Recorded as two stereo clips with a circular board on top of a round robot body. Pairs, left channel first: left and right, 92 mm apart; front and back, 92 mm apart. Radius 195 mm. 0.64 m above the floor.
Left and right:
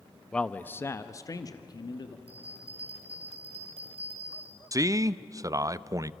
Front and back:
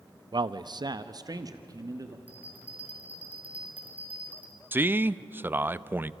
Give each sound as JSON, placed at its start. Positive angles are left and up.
{"t": 0.3, "sound": "a man speaking", "azimuth_deg": 170, "distance_m": 0.8}
{"t": 2.3, "sound": "a bell", "azimuth_deg": -105, "distance_m": 5.5}
{"t": 4.7, "sound": "a man speaking", "azimuth_deg": -120, "distance_m": 0.7}